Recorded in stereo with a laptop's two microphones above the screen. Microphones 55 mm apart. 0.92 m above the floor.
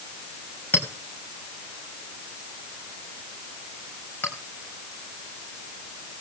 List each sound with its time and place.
0.7 s a clink: 40° left (ahead or behind), 4 m